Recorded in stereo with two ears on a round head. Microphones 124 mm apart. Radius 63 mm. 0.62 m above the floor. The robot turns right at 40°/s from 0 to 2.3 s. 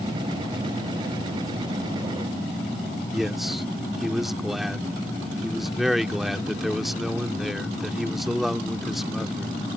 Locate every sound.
3.1 s a man speaking: centre (ahead or behind)